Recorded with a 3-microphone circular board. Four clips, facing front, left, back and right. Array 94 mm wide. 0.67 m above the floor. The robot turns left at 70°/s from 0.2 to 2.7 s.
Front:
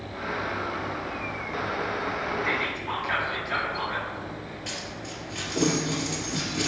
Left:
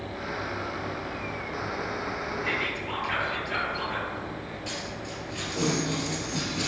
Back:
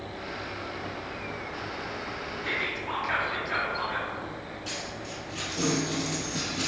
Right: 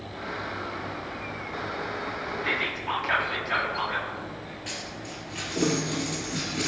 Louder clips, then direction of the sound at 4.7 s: Left 2 dB, even; 50° right.